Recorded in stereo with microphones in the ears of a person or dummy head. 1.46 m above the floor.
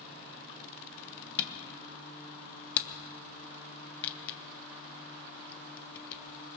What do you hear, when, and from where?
1.4 s a camera shutter: 30° left (ahead or behind), 1.0 m